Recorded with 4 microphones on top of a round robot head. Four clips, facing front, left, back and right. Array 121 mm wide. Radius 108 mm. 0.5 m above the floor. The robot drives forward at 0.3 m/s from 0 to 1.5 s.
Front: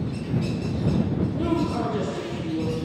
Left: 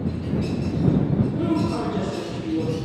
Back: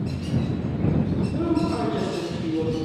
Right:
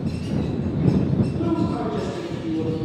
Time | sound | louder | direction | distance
1.3 | a woman speaking | even, back 1 dB | 150° left | 9.5 m